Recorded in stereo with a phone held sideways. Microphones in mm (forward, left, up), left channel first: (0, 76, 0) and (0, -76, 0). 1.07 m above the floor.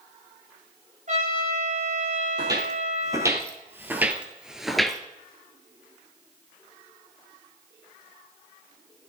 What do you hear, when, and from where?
1.1 s a trumpet: 55° right (ahead or behind), 6.5 m
2.4 s footsteps: 25° right (ahead or behind), 2 m; by 5.0 s 5° left (ahead or behind), 1.2 m